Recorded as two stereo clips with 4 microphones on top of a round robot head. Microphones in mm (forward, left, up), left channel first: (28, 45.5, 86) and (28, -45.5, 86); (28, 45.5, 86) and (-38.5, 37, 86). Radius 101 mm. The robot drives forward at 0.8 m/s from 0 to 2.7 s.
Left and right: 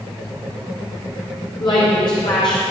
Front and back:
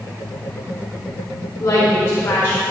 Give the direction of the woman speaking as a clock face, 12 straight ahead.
10 o'clock.